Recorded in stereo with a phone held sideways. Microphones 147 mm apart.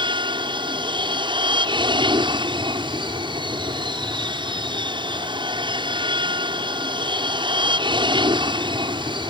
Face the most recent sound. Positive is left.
turn(degrees=-35)  # may be behind; listen again after turning